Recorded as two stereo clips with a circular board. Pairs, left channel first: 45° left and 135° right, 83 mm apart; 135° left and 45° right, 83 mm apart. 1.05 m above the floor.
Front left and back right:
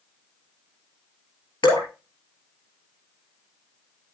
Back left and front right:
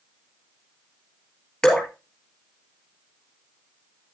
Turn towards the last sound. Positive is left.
turn(degrees=50)